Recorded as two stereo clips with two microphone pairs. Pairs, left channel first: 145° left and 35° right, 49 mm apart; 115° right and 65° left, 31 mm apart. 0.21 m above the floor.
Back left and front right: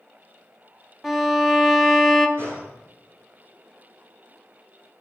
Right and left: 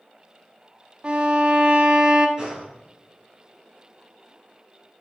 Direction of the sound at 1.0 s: 65° left.